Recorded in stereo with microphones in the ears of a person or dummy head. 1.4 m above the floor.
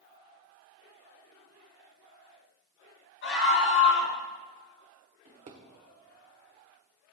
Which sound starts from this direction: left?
A scream, at 3.2 s.